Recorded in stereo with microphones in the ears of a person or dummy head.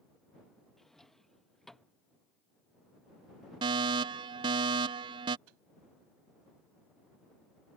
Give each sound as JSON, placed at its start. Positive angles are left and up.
{"t": 0.8, "sound": "a drawer", "side_deg": 5}
{"t": 3.6, "sound": "a fire alarm", "side_deg": -25}
{"t": 5.5, "sound": "a microwave", "side_deg": -80}